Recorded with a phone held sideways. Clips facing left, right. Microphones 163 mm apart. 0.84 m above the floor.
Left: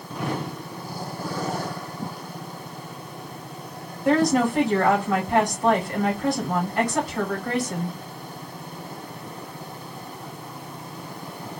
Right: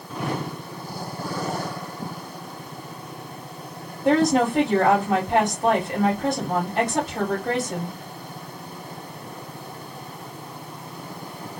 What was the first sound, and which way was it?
A woman speaking, 30° right (ahead or behind).